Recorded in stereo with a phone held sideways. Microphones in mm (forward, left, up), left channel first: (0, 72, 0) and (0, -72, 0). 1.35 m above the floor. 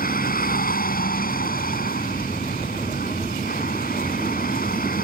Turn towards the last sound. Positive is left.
turn(degrees=90)